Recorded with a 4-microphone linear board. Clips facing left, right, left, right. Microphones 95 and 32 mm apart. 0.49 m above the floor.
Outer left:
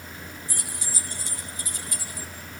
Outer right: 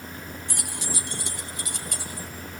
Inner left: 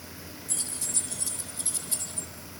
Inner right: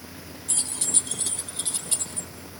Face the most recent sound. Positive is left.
turn(degrees=-70)  # may be behind; listen again after turning